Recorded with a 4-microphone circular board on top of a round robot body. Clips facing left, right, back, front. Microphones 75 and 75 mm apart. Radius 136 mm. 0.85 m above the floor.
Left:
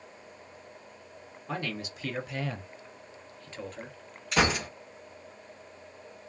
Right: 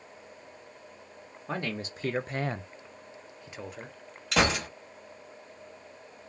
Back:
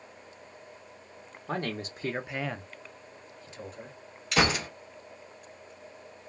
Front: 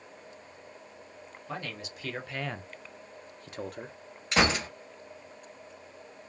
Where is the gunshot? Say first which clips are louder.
Even, even; 65° right, 1.3 m.